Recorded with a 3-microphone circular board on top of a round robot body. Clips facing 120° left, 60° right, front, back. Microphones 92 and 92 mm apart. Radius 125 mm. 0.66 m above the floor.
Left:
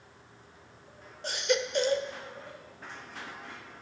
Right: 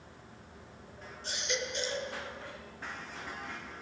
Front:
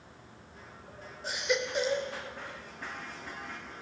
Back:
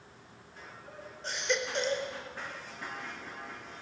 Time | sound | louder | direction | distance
1.2 | a baby crying | left 8 dB, front 2 dB | 85° left | 1.4 m